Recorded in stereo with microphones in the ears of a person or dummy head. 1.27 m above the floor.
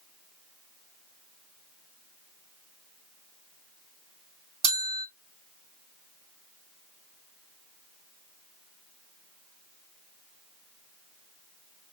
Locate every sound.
4.6 s a bell: 30° right (ahead or behind), 2.5 m